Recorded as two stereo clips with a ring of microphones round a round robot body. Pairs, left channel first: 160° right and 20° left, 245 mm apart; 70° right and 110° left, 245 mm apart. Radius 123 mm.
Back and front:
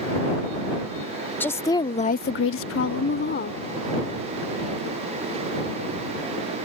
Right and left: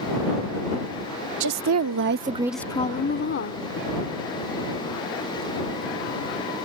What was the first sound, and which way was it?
A woman speaking, 120° left.